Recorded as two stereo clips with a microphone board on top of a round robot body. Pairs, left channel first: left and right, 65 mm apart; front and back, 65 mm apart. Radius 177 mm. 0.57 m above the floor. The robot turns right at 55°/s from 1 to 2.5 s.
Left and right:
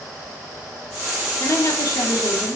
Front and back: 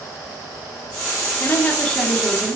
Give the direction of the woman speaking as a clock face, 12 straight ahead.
10 o'clock.